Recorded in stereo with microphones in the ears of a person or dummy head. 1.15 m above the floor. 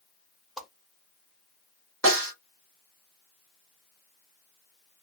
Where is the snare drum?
75° right (ahead or behind), 1.5 m.